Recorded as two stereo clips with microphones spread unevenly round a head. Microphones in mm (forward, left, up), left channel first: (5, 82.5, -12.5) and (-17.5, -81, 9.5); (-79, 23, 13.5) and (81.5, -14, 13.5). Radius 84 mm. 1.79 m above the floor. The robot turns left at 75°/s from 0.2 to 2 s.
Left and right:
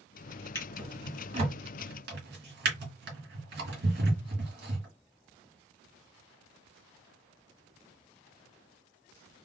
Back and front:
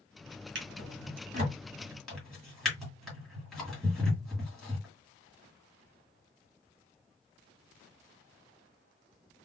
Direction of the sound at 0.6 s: 5° left.